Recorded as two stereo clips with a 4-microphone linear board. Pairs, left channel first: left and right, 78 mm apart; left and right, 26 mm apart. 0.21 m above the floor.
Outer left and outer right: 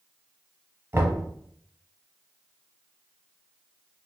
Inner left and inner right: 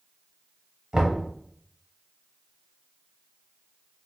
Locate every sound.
0.9 s knocking: 30° right (ahead or behind), 0.8 m